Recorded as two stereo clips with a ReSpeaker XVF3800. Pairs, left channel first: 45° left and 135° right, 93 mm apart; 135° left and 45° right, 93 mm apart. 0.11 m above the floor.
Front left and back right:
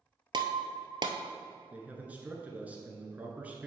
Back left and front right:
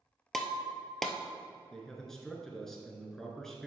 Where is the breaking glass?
140° right, 0.8 m.